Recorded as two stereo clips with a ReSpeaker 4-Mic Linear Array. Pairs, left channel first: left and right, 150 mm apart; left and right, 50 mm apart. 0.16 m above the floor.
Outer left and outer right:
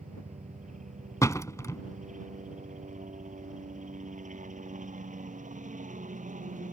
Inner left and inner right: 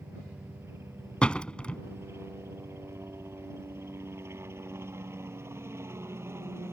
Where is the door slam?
20° left (ahead or behind).